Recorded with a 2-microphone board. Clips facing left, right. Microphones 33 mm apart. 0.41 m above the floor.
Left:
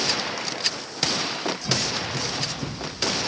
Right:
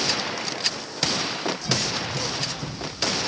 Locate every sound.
1.6 s running footsteps: 35° left (ahead or behind), 6.5 m; by 3.3 s 45° left (ahead or behind), 4.5 m